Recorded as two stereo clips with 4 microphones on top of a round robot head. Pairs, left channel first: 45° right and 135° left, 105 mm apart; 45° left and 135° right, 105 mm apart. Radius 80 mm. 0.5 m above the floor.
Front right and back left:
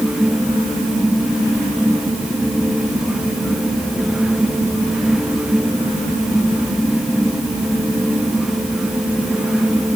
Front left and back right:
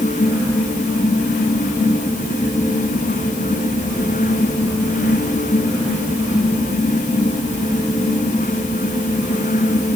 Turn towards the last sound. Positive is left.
No sound to turn to.